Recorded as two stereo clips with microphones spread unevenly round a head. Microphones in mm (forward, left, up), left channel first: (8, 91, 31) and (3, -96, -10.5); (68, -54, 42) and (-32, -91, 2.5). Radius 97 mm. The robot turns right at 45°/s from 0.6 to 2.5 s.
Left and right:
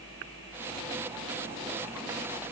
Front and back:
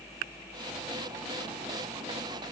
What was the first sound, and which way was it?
Only background noise.